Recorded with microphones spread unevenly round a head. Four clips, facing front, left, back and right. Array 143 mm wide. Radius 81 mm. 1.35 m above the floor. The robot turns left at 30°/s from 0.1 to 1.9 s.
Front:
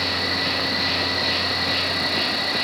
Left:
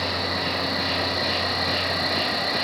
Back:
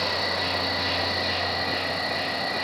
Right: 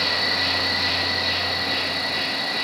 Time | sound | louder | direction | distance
0.0 | an insect | even, front 1 dB | 170° left | 0.7 m